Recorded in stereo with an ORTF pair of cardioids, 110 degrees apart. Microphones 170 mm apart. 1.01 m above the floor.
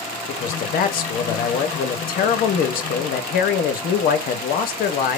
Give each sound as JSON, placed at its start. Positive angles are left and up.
{"t": 0.3, "sound": "a man speaking", "azimuth_deg": 60, "distance_m": 1.2}